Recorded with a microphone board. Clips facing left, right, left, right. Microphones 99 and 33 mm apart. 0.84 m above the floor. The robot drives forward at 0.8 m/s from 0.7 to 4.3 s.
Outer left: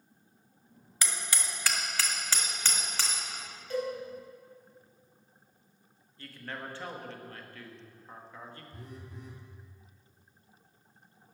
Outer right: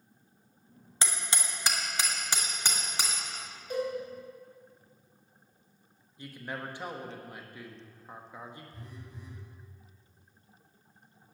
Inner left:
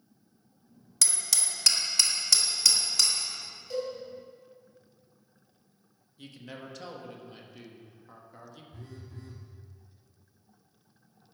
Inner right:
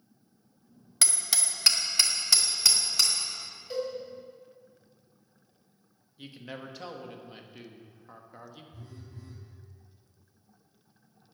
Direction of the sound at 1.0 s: 30° right (ahead or behind).